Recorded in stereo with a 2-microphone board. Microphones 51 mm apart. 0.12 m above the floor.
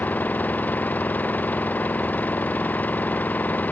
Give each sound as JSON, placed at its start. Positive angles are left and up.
{"t": 0.0, "sound": "an engine running", "side_deg": 30}